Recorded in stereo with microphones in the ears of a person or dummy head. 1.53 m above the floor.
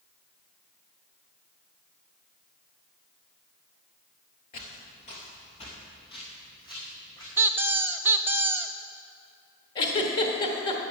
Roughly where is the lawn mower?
No lawn mower in this recording.